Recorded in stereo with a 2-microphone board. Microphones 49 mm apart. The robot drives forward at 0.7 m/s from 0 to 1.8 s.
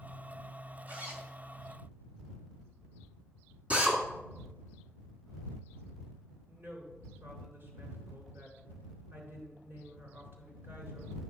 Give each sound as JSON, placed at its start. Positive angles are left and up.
{"t": 0.9, "sound": "a zipper", "side_deg": -35, "distance_m": 1.8}
{"t": 3.7, "sound": "a drill", "side_deg": -25, "distance_m": 2.0}
{"t": 6.5, "sound": "a woman speaking", "side_deg": -50, "distance_m": 3.5}